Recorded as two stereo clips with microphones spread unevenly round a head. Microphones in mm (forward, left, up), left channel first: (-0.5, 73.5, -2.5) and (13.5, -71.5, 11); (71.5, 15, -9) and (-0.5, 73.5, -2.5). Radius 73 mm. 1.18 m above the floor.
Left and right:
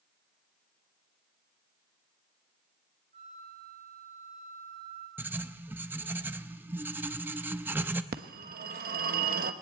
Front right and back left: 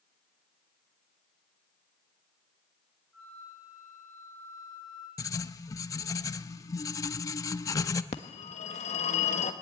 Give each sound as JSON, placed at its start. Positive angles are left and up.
{"t": 3.1, "sound": "a flute", "azimuth_deg": -130, "distance_m": 7.0}
{"t": 5.2, "sound": "writing", "azimuth_deg": -30, "distance_m": 0.6}
{"t": 8.1, "sound": "a phone ringing", "azimuth_deg": -60, "distance_m": 1.1}